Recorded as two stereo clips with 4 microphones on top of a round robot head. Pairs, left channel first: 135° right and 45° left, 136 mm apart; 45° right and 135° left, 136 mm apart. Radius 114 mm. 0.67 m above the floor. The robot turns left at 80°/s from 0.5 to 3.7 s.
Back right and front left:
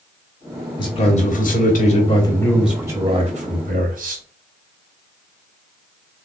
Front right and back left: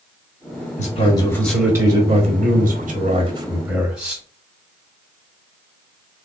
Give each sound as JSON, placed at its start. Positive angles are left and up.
{"t": 0.8, "sound": "a man speaking", "azimuth_deg": -75, "distance_m": 1.7}